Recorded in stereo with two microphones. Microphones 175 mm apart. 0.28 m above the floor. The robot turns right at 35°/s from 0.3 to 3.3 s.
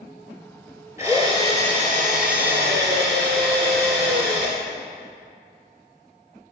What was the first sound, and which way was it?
A drill, 160° right.